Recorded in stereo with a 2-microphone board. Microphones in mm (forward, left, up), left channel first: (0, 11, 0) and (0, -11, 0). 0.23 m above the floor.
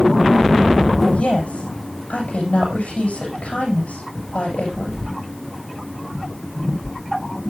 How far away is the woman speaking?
About 9 m.